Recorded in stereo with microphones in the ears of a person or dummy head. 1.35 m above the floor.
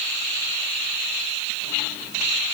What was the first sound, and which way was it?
Only background noise.